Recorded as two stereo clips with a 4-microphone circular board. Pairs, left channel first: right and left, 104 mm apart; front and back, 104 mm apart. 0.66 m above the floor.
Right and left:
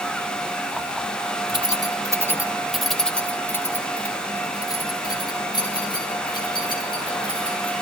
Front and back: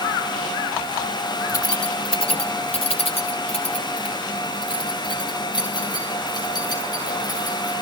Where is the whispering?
No whispering in this recording.